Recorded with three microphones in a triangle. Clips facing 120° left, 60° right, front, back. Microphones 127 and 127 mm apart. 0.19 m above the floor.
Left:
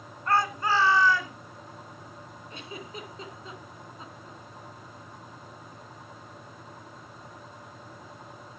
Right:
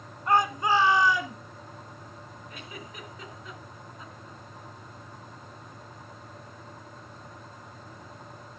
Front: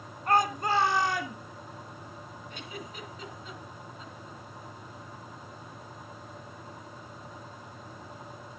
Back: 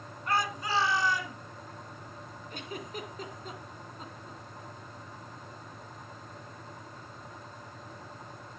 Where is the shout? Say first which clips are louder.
Right 2 dB, front 5 dB; 5° left, 1.8 m; by 1.4 s 15° left, 3 m.